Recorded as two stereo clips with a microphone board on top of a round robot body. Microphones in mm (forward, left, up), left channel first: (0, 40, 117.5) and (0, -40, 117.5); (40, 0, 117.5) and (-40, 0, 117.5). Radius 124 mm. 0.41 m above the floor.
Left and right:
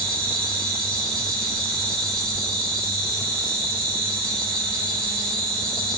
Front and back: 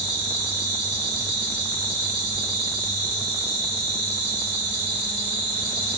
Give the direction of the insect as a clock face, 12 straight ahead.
6 o'clock.